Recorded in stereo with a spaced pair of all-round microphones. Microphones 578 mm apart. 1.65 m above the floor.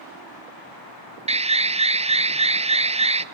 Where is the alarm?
10° right (ahead or behind), 0.6 m.